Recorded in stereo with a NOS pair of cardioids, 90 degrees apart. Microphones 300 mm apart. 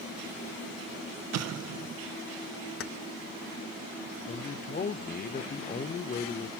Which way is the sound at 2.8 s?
45° left.